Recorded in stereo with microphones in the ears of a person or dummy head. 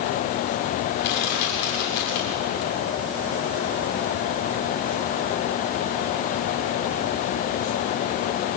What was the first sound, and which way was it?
Crushing, 65° left (ahead or behind).